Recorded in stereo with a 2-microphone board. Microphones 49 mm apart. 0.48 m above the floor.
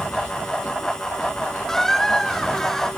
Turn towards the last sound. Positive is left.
turn(degrees=10)  # may be behind; listen again after turning